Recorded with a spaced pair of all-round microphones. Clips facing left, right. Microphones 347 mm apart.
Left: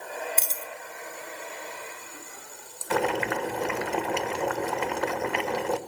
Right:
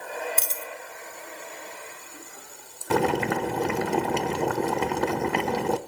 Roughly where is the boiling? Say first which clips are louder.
Right 3 dB; right.